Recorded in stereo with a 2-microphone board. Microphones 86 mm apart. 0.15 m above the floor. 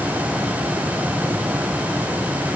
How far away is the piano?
I don't hear a piano.